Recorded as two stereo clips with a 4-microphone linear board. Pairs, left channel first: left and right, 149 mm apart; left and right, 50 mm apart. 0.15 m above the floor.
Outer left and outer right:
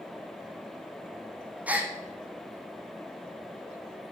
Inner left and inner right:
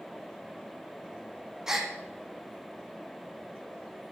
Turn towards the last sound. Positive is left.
turn(degrees=-10)  # may be behind; listen again after turning